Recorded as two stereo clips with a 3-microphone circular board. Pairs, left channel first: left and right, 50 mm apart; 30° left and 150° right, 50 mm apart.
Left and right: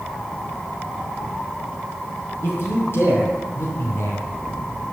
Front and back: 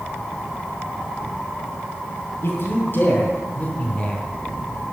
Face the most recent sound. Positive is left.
turn(degrees=95)